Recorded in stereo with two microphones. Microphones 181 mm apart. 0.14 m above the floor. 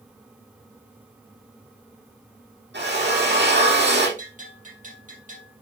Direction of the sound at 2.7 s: 75° right (ahead or behind).